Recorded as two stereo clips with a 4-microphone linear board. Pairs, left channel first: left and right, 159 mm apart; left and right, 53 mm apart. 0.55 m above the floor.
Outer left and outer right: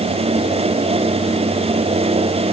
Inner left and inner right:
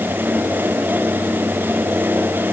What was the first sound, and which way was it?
Only background noise.